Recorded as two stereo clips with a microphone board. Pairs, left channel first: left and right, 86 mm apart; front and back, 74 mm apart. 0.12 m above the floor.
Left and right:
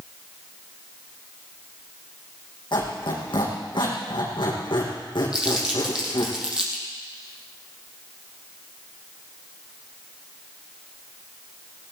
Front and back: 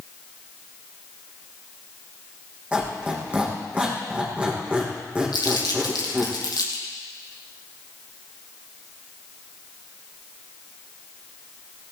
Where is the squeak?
110° left, 5 m.